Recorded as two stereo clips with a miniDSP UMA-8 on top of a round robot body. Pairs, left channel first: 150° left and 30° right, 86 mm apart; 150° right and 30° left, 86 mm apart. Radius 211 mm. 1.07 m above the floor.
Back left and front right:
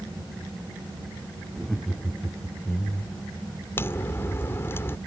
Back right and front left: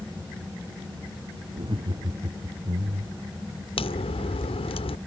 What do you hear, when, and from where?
1.5 s laughter: 55° left; by 3.3 s 80° left
3.8 s a crack: 145° right